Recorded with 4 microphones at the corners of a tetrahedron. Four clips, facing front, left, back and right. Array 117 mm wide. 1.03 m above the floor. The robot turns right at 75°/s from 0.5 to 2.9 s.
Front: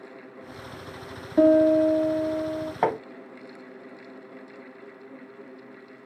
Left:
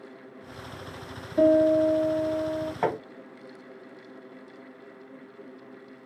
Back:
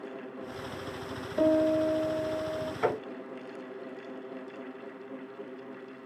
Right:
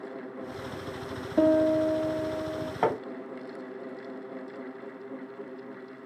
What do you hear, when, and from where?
1.4 s a piano: 35° right, 1.2 m; by 2.7 s 65° left, 1.2 m
2.8 s hammering: 10° right, 1.7 m; by 3.0 s straight ahead, 1.7 m